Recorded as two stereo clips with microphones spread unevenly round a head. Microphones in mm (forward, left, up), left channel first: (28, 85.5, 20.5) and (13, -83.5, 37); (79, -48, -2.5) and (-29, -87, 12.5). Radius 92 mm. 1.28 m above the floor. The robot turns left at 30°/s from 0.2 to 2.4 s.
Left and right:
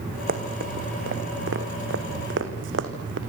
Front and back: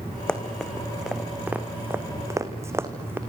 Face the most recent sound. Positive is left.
turn(degrees=-90)